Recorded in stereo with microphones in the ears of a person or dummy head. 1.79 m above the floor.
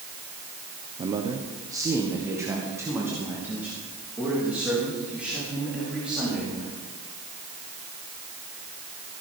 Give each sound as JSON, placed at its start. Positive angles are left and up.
{"t": 1.0, "sound": "a man speaking", "side_deg": -25, "distance_m": 0.9}